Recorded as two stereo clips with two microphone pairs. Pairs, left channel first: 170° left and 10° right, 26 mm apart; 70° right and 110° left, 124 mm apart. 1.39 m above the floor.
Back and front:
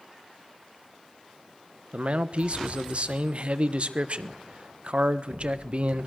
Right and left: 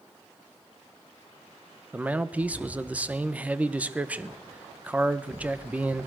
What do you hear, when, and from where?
1.9 s a man speaking: 30° left, 1.2 m